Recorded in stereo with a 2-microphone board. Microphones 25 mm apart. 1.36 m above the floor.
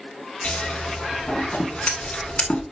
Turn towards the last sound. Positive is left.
turn(degrees=55)  # may be behind; listen again after turning